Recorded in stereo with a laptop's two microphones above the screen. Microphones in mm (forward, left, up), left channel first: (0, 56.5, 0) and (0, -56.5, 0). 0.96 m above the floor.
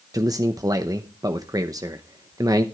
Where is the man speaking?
30° right (ahead or behind), 0.8 m.